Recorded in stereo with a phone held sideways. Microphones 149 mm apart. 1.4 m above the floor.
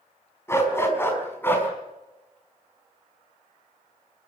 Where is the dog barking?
20° left (ahead or behind), 5 m; by 1.7 s 15° left (ahead or behind), 6 m.